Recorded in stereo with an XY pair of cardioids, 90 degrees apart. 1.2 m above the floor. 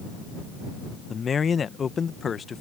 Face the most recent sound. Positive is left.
turn(degrees=45)